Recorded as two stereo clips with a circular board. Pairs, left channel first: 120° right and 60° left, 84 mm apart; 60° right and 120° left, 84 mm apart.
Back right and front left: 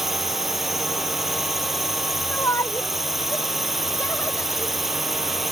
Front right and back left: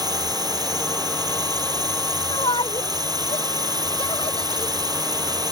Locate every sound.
0.0 s a drone: 145° left
2.3 s a shout: 70° right